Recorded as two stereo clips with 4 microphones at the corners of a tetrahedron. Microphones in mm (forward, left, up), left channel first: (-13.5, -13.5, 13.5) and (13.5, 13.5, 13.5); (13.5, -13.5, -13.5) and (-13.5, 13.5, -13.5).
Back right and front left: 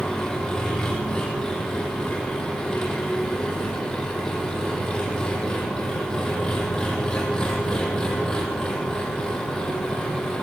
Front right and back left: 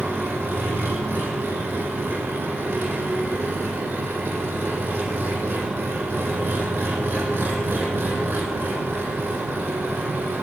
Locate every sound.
0.0 s an engine running: 155° left, 6 m